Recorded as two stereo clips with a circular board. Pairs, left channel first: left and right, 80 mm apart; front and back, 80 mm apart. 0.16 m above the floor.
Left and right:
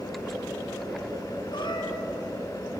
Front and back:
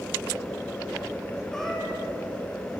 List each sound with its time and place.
1.5 s a cat meowing: 85° left, 4.5 m